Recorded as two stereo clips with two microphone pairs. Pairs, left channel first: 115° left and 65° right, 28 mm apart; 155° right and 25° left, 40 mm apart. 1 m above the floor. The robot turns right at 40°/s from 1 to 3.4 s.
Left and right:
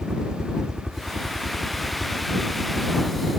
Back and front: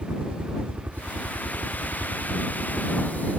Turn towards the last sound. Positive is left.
turn(degrees=105)